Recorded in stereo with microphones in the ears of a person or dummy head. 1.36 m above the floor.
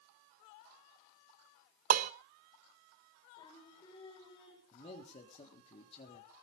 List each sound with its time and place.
1.9 s dishes clattering: 40° right (ahead or behind), 0.6 m
3.4 s singing: 25° left (ahead or behind), 6 m
4.7 s a man speaking: 35° left (ahead or behind), 3.5 m